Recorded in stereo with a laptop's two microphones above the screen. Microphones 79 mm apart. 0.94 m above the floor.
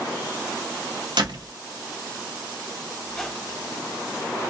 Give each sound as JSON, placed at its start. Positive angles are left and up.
{"t": 1.2, "sound": "a door slam", "side_deg": -65, "distance_m": 0.9}
{"t": 3.0, "sound": "a squeak", "side_deg": 5, "distance_m": 0.5}